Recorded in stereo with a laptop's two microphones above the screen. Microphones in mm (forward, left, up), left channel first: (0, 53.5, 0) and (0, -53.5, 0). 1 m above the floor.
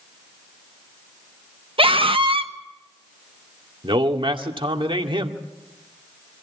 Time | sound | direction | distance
1.8 | a scream | 55° right (ahead or behind) | 1.4 m
3.8 | a man speaking | 50° right (ahead or behind) | 2 m